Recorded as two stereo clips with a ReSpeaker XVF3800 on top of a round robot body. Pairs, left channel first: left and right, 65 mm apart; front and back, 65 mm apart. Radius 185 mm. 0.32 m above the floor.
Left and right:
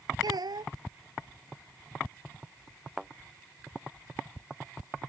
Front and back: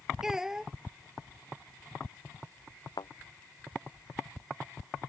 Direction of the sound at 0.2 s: 95° right.